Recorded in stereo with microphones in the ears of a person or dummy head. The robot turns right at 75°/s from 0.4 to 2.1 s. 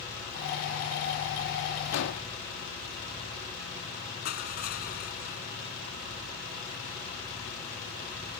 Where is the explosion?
80° left; by 2.3 s 65° left (ahead or behind).